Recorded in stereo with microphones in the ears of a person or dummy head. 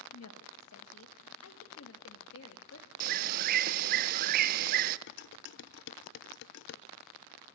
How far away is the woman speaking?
About 1.8 m.